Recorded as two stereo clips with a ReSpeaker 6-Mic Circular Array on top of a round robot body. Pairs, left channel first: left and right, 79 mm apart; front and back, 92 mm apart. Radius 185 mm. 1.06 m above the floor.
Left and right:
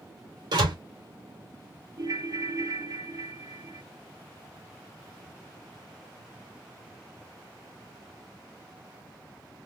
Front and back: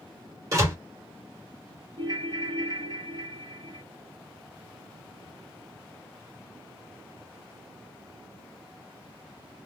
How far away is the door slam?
About 3 m.